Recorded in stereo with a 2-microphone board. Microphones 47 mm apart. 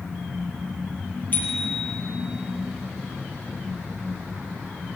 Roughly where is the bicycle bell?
Left.